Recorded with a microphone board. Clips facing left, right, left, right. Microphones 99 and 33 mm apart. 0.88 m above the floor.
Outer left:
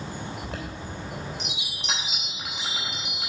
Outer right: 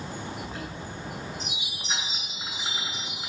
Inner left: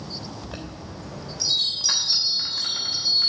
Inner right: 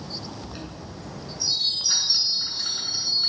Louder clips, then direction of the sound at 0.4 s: Outer left 1 dB, inner left 1 dB; 70° left (ahead or behind).